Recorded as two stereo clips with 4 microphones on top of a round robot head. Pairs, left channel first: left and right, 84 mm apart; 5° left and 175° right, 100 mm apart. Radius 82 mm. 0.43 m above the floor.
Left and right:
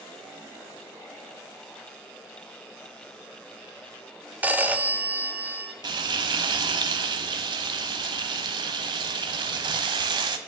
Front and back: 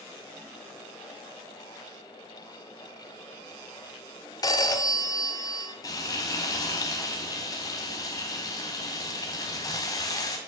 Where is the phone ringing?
25° right, 0.7 m.